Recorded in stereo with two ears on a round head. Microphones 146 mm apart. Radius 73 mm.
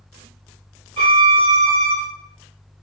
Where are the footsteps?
I don't hear footsteps.